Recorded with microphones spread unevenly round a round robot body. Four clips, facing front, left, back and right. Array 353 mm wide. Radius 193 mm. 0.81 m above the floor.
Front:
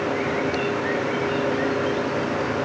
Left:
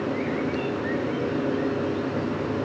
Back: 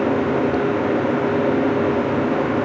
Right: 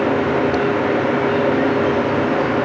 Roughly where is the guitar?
I don't hear a guitar.